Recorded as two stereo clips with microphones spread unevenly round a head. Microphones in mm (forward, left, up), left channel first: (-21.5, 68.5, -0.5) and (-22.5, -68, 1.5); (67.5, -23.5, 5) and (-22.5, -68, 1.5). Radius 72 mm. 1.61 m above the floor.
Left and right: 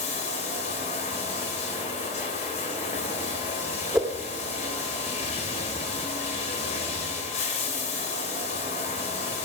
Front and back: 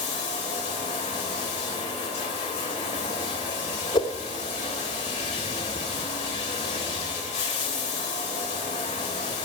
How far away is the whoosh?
About 2.5 m.